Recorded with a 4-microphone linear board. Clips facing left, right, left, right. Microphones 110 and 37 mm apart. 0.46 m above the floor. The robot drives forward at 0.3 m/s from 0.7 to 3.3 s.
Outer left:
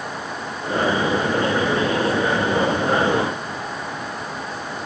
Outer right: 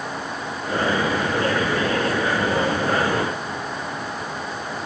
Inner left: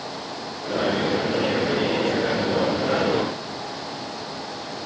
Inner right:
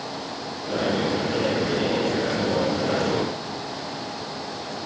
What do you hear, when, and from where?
Only background noise.